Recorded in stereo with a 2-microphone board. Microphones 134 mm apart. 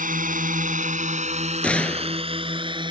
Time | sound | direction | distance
0.0 | a drone | 85° right | ?
1.6 | a gunshot | 10° left (ahead or behind) | ?